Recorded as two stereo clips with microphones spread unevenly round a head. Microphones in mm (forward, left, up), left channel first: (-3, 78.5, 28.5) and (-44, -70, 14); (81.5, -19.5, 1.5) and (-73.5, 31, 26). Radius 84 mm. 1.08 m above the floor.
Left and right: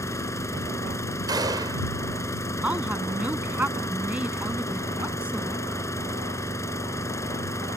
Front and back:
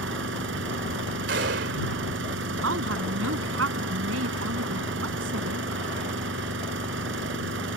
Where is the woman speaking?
170° left.